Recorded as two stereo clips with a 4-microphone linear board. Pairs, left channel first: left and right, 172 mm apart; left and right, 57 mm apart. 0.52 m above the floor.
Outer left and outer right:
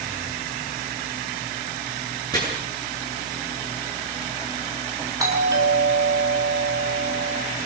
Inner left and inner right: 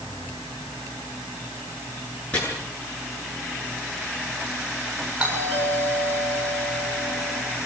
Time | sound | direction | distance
2.3 | chopping | 20° left (ahead or behind) | 9 m
5.2 | a doorbell | 20° right (ahead or behind) | 8 m